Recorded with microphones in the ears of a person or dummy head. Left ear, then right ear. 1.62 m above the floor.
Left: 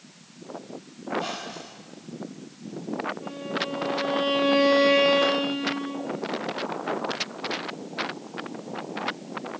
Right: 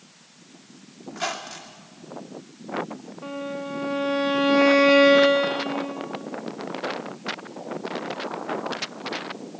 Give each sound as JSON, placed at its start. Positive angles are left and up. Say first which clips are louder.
{"t": 1.1, "sound": "a squeak", "louder": "even", "side_deg": -55, "distance_m": 2.5}
{"t": 3.2, "sound": "a violin", "louder": "left 1 dB", "side_deg": -40, "distance_m": 3.5}